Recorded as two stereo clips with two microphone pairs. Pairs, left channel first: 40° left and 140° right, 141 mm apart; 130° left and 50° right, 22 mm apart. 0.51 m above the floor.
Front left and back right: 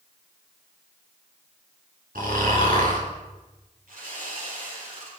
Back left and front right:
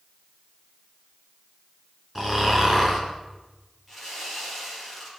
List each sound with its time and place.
2.1 s snoring: 135° right, 4 m
3.9 s sawing: 145° right, 8 m